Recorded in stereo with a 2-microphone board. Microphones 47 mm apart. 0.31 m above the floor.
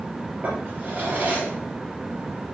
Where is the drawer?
40° right (ahead or behind), 4 m.